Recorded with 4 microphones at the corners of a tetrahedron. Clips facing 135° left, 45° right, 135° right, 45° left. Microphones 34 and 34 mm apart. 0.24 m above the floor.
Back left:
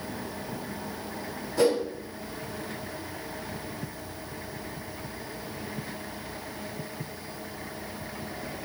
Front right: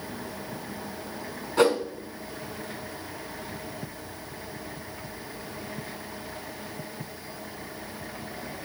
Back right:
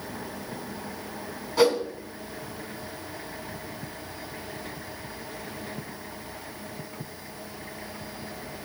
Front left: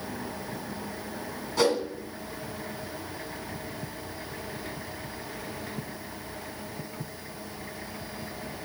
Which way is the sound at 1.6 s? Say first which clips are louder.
Front right 2 dB, back right 3 dB; 55° right.